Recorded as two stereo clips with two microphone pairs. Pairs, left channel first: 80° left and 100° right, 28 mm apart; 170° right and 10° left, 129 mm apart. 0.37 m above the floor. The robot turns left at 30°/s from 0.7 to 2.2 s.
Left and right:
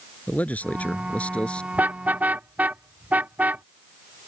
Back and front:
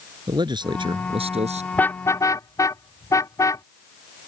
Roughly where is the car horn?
Right.